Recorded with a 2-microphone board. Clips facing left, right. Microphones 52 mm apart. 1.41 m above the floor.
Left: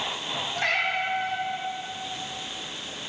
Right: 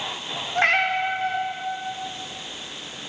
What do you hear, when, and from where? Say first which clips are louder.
0.6 s a cat meowing: right 6 dB; 45° right (ahead or behind), 1.4 m